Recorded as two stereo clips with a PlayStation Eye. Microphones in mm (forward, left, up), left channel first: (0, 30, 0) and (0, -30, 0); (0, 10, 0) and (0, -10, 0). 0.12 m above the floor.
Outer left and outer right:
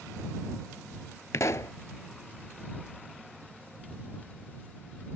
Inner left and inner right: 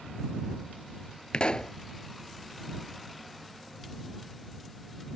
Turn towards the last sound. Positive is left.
turn(degrees=60)  # may be behind; listen again after turning